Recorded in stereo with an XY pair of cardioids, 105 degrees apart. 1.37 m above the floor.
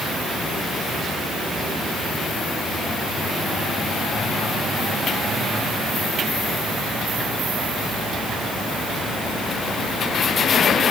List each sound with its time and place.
Only background noise.